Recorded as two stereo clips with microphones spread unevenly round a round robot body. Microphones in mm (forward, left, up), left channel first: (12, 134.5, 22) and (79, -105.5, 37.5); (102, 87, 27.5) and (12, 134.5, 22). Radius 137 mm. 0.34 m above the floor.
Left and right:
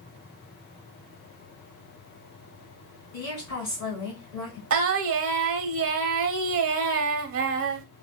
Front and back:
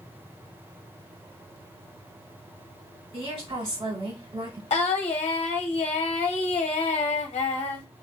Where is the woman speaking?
145° left, 2.5 m.